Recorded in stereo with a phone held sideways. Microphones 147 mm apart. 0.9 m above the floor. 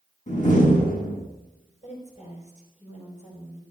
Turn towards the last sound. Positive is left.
turn(degrees=55)  # may be behind; listen again after turning